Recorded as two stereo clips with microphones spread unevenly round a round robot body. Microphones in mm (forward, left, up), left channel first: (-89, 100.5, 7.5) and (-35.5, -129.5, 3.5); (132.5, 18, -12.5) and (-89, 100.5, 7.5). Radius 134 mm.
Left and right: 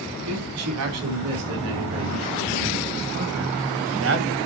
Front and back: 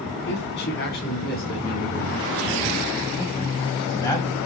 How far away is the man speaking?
About 5 m.